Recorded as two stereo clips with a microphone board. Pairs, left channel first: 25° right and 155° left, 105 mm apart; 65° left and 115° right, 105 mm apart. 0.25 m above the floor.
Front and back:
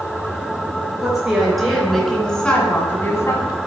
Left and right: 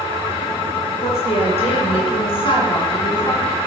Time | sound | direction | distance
1.0 | a woman speaking | 70° left | 4 m